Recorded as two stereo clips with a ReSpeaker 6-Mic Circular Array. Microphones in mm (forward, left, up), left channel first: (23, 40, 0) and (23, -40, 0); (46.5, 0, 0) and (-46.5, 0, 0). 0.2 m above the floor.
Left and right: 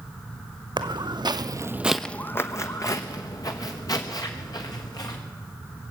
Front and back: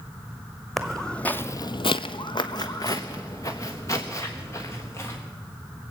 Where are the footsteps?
90° right, 1.0 m; by 5.2 s 60° left, 3 m.